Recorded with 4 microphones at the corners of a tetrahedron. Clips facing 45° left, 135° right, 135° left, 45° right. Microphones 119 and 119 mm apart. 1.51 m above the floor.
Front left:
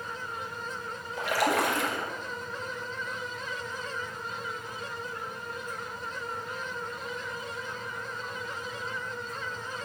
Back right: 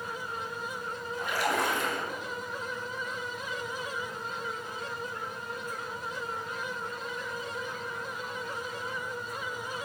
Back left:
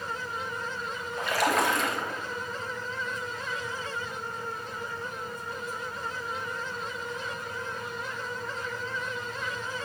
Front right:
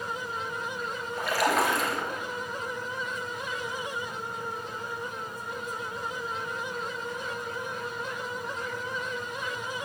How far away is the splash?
About 2.5 m.